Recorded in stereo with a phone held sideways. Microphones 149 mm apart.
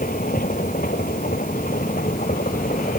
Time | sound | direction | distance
0.0 | a machine running | 70° left (ahead or behind) | ?